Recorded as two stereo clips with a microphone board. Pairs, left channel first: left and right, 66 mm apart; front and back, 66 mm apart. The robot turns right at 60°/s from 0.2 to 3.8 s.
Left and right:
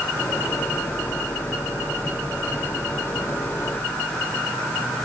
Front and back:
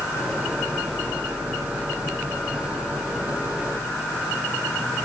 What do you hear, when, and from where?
Only background noise.